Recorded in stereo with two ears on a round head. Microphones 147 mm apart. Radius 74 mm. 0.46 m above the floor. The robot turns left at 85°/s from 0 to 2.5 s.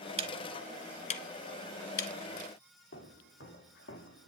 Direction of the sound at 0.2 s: 35° right (ahead or behind).